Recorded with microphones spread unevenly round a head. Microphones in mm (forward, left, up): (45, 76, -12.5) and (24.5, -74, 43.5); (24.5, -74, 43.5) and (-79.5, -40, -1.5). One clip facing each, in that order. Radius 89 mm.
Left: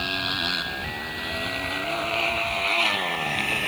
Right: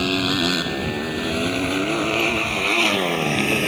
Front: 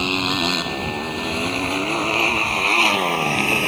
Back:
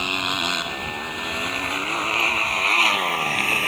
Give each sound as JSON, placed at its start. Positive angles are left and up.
{"t": 0.0, "sound": "a motorcycle", "azimuth_deg": -75}